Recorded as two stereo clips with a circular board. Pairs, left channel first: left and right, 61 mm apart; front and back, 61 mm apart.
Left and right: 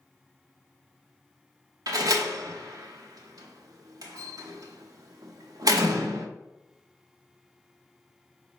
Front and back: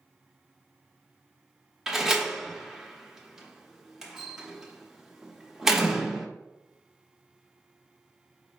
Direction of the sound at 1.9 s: 100° right.